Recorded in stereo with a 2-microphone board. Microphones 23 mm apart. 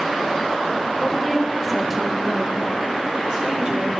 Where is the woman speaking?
5° left (ahead or behind), 1.3 m; by 3.9 s 45° right (ahead or behind), 1.4 m.